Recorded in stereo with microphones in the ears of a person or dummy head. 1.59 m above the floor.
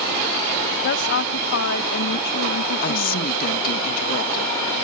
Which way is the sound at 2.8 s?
50° left (ahead or behind).